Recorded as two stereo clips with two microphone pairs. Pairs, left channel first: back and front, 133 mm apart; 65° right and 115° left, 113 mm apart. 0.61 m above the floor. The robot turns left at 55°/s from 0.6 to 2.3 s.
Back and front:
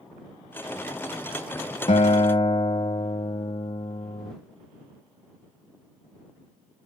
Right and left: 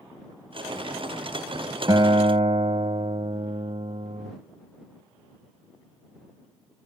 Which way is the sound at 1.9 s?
160° left.